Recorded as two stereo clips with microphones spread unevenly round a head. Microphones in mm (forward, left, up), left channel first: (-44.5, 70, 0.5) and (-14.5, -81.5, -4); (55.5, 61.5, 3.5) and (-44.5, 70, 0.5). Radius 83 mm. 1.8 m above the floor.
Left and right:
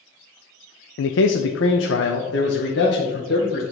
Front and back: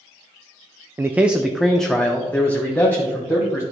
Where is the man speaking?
105° left, 0.6 m; by 3.6 s 65° left, 2.0 m.